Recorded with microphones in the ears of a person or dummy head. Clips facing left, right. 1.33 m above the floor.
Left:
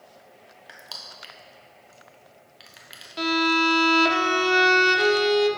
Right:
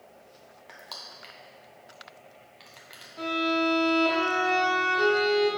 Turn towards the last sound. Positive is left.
turn(degrees=85)